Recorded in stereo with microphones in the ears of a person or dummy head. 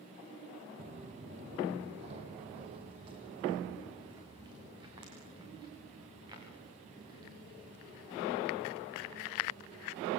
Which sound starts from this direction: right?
Footsteps, at 0.8 s.